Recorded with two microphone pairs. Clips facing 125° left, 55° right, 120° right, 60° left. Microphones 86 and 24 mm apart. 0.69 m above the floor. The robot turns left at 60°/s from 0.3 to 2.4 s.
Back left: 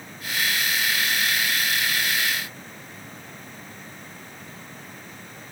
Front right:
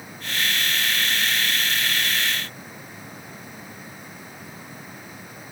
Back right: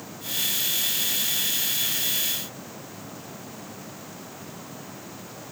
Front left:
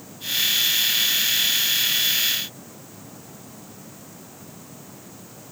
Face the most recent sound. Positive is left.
No sound to turn to.